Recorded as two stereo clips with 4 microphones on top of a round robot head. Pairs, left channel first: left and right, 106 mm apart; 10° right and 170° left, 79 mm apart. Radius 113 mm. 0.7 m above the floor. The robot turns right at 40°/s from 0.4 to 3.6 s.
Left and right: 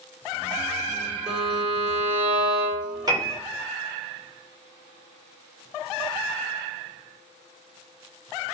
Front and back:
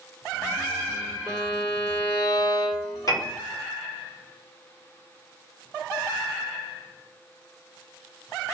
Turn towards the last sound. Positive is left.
turn(degrees=-20)